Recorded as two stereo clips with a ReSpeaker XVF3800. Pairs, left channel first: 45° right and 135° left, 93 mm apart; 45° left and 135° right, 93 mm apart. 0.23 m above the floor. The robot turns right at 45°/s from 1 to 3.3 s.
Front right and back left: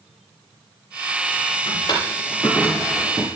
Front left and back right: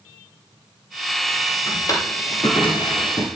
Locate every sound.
1.7 s a drawer: 15° right, 3 m; by 3.3 s 60° left, 3 m